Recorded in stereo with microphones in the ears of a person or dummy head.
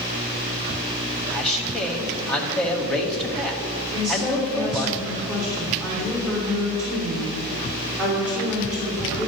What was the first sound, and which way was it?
A man speaking, 5° left (ahead or behind).